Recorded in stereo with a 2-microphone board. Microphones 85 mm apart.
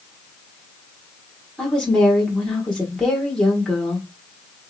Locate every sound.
1.6 s a woman speaking: 10° left (ahead or behind), 2 m